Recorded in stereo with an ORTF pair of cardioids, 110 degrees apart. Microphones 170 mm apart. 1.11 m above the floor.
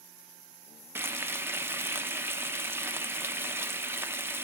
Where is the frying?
15° right, 0.6 m.